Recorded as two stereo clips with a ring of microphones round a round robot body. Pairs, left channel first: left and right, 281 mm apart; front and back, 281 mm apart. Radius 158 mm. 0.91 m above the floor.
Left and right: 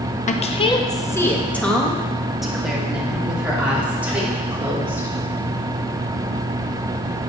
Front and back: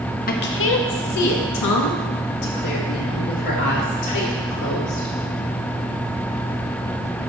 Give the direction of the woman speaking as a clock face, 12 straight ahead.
11 o'clock.